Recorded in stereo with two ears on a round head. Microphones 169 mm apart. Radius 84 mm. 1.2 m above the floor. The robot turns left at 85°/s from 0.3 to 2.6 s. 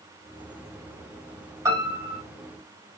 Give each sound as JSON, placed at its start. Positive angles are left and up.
{"t": 1.6, "sound": "a piano", "azimuth_deg": -20, "distance_m": 2.5}